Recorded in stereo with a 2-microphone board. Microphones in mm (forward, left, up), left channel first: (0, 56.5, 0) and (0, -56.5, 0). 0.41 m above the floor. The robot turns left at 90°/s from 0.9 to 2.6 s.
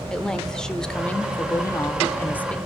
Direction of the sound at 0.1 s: 5° left (ahead or behind).